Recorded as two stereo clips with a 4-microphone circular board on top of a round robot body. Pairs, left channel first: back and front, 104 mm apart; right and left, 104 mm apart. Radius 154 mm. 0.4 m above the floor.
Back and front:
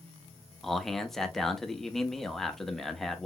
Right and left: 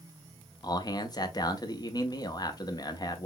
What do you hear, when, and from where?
0.6 s a man speaking: 95° right, 0.9 m